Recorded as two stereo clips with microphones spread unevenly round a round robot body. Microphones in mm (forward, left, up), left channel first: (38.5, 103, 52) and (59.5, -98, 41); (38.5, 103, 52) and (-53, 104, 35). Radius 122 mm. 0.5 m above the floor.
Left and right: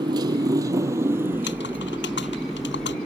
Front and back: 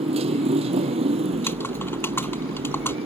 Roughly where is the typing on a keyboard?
Ahead left.